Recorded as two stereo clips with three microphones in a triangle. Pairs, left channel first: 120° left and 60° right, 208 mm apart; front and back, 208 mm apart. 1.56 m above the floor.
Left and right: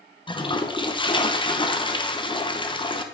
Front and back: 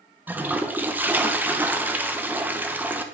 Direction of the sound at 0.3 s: 110° left.